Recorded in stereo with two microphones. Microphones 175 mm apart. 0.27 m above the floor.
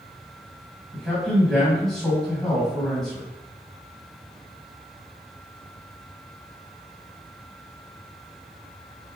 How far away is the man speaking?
About 1.8 m.